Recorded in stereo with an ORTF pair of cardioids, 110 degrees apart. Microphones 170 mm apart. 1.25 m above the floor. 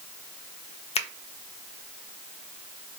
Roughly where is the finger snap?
Ahead left.